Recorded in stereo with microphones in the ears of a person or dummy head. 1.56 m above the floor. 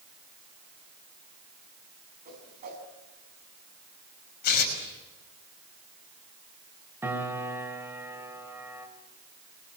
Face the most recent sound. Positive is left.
turn(degrees=-10)  # may be behind; listen again after turning